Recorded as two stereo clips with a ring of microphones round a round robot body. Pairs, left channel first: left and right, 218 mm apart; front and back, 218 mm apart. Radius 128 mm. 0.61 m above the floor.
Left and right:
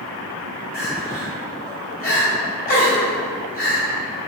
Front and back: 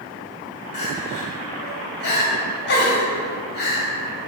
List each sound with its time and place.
0.7 s crying: 40° left, 2 m